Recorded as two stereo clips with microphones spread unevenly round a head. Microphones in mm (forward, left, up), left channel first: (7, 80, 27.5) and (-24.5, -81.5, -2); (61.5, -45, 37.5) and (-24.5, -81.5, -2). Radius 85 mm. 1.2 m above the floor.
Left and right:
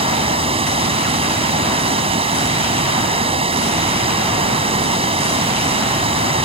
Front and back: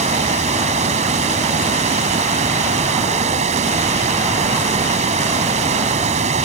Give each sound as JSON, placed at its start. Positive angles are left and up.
{"t": 0.0, "sound": "running water", "azimuth_deg": -160}